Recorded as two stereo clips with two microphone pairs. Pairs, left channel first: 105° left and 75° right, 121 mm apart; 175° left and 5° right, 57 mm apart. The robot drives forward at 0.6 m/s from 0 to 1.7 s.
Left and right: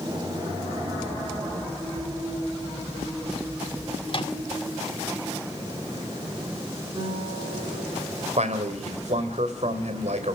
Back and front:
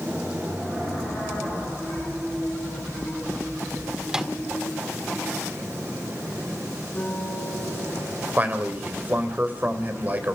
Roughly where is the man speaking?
Ahead right.